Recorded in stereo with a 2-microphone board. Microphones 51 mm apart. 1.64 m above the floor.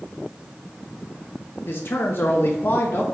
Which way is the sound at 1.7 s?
45° left (ahead or behind).